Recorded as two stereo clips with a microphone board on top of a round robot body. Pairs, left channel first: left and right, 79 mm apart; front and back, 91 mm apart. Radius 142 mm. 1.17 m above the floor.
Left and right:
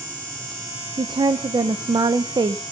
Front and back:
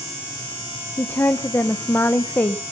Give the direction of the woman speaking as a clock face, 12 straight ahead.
2 o'clock.